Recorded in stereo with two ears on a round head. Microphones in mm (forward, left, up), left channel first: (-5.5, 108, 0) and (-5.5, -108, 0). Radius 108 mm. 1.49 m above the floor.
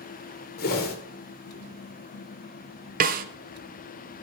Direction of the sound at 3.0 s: 35° right (ahead or behind).